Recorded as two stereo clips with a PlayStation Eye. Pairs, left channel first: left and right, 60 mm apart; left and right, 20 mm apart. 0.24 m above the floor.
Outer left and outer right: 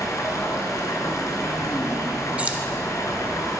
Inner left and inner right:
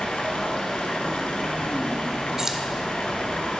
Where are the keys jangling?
25° right (ahead or behind), 0.7 m.